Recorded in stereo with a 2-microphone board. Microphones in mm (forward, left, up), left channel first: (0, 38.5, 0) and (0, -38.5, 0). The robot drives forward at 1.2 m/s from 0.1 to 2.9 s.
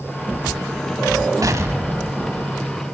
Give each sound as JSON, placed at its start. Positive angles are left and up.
{"t": 1.4, "sound": "an explosion", "side_deg": -50, "distance_m": 0.8}